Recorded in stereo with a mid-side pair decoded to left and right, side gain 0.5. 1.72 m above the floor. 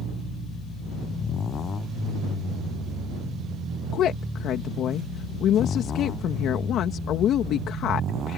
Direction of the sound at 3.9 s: 65° left.